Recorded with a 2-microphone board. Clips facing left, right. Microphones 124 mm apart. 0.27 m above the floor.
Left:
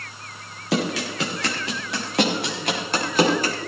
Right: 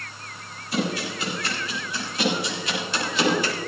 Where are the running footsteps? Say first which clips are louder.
Left 3 dB; 85° left, 5 m; by 3.5 s 40° left (ahead or behind), 5.5 m.